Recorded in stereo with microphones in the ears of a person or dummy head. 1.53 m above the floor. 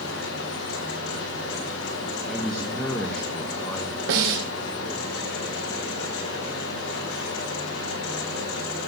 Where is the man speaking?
Centre (ahead or behind), 2.5 m.